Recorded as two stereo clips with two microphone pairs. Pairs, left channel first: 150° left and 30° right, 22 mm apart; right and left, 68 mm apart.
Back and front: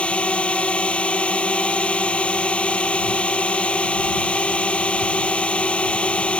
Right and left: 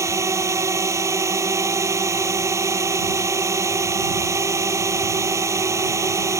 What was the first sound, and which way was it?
A drone, 135° left.